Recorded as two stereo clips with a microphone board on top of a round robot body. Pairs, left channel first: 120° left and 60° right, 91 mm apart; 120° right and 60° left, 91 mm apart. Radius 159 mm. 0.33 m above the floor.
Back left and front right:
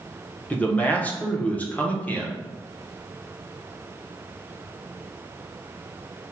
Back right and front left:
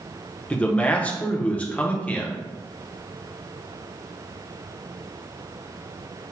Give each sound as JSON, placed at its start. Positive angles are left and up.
{"t": 0.5, "sound": "a man speaking", "azimuth_deg": 180, "distance_m": 1.0}